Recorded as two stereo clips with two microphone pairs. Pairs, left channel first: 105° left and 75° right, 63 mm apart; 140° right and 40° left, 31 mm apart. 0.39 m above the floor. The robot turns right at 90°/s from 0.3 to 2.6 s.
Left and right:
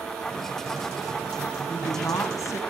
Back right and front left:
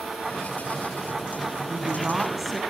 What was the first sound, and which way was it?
A woman speaking, 55° left.